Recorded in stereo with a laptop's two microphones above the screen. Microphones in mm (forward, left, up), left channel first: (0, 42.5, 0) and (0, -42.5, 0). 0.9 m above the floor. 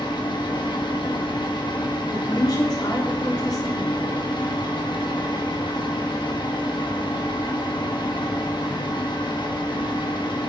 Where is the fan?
65° left (ahead or behind), 1.2 m.